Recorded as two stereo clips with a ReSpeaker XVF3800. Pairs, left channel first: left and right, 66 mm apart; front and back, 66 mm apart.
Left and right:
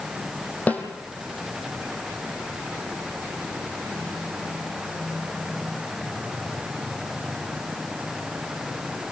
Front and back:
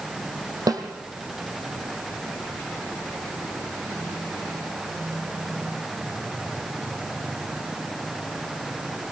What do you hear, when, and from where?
0.7 s a snare drum: 155° left, 3.5 m